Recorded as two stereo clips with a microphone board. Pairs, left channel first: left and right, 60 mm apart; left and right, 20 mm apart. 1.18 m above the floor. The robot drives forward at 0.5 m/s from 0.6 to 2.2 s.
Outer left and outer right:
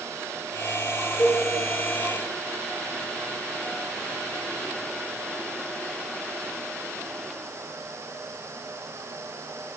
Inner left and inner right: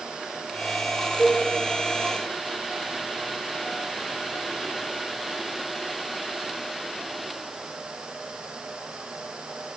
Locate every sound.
1.2 s a cowbell: 20° left (ahead or behind), 2.5 m